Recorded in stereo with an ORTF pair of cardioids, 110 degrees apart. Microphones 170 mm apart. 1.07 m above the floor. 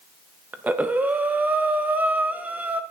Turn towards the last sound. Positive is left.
turn(degrees=-10)